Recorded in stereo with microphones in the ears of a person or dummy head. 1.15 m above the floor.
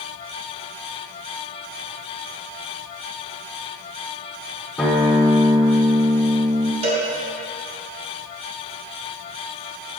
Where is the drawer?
No drawer in this recording.